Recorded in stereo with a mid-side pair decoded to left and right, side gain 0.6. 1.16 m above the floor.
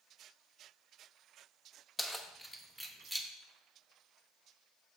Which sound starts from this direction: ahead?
Keys jangling, at 2.0 s.